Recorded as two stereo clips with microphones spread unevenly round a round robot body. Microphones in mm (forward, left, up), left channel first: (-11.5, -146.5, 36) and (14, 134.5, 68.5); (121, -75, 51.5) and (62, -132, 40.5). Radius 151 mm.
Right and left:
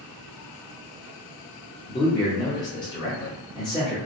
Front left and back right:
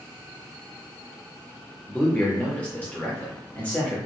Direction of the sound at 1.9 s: 30° right.